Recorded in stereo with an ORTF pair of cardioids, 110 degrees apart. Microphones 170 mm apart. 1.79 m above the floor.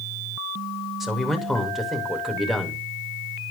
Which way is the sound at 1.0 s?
Straight ahead.